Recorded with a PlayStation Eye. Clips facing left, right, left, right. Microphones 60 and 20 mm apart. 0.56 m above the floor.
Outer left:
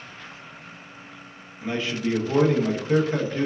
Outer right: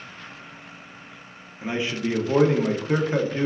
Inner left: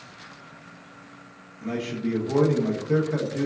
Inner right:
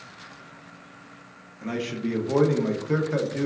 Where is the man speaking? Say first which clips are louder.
Even, even; 20° right (ahead or behind), 0.7 m.